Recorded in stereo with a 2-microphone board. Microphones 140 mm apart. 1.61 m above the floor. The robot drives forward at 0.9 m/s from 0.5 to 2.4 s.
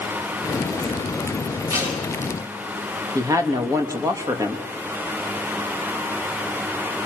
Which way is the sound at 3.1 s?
25° right (ahead or behind).